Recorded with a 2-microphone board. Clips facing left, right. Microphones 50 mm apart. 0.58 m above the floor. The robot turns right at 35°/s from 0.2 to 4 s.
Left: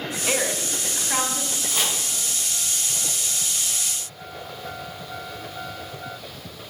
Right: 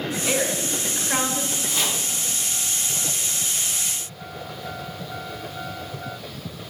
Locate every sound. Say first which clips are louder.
0.3 s a woman speaking: even; 165° left, 1.3 m; by 1.6 s 150° right, 1.3 m
1.7 s chopping: left 1 dB; centre (ahead or behind), 3.5 m; by 2.0 s 10° left (ahead or behind), 3.5 m